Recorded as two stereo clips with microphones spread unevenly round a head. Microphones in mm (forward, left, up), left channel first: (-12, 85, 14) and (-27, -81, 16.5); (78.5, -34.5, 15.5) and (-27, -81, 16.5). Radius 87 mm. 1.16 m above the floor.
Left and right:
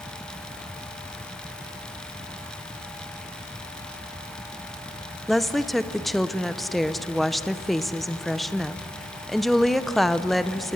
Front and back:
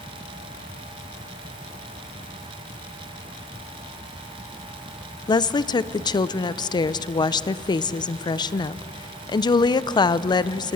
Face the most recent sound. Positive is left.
turn(degrees=-5)